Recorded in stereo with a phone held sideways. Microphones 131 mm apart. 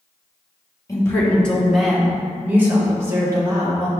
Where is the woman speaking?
25° left (ahead or behind), 1.6 m; by 3.9 s 30° right (ahead or behind), 3.5 m.